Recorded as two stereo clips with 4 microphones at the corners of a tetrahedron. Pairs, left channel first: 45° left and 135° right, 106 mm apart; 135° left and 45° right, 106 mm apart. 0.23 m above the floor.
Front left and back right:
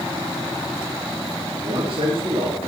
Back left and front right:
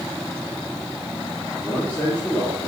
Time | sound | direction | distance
1.6 | a man speaking | 150° right | 4 m